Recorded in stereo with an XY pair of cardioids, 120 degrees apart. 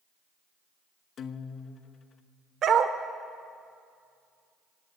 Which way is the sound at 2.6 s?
55° right.